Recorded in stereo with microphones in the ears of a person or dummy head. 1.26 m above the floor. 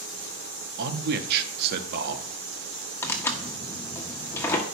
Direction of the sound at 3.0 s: 10° left (ahead or behind).